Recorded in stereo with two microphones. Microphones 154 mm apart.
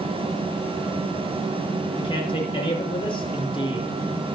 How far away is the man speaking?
About 6 m.